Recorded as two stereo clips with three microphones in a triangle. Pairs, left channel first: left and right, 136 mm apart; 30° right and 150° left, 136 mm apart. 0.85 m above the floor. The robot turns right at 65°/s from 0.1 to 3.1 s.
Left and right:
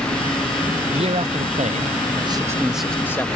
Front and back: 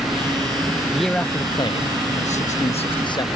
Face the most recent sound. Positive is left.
turn(degrees=15)